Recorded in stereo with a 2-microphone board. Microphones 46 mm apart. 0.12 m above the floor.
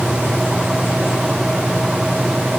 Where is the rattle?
No rattle in this recording.